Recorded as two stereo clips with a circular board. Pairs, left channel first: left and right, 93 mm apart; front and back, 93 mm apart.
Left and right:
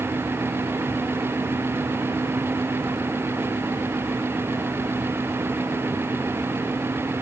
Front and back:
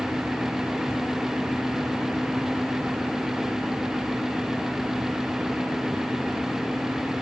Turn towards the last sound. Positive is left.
No sound to turn to.